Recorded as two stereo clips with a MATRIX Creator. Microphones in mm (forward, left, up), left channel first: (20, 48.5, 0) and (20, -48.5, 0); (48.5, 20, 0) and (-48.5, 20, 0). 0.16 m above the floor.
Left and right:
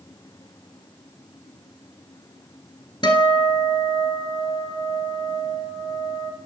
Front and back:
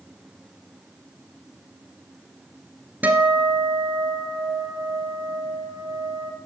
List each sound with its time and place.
3.0 s a guitar: 110° left, 0.9 m